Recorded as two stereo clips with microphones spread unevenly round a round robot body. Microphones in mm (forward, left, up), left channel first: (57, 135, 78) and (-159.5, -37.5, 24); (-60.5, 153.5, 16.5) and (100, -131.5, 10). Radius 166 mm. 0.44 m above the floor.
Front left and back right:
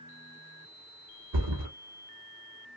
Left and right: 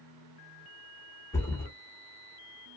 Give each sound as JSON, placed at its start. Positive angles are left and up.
{"t": 1.3, "sound": "a thud", "azimuth_deg": -160, "distance_m": 1.6}